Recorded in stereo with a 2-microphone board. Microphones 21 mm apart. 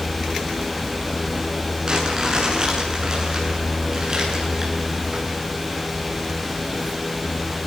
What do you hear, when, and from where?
1.9 s crumpling: 40° right (ahead or behind), 8.5 m